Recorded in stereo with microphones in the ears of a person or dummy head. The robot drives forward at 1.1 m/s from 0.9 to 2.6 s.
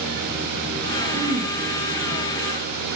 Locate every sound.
1.1 s throat clearing: 50° right (ahead or behind), 1.3 m; by 1.5 s 40° right (ahead or behind), 1.6 m